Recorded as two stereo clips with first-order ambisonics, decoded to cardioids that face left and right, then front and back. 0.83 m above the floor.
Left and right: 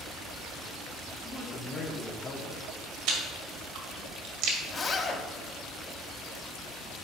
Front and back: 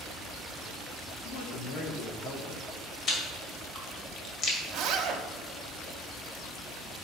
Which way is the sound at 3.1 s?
60° right.